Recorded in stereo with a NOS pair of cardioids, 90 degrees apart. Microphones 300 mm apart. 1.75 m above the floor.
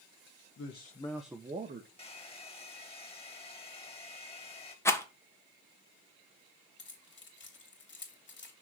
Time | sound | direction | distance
0.6 | a man speaking | 45° left | 1.4 m
2.0 | a hair dryer | 20° left | 2.5 m
4.8 | a rattle | 10° left | 1.5 m
6.8 | keys jangling | 40° left | 2.5 m